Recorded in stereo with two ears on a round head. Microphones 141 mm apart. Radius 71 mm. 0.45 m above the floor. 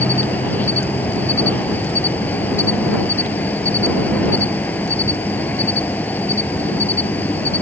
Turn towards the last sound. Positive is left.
turn(degrees=10)  # may be behind; listen again after turning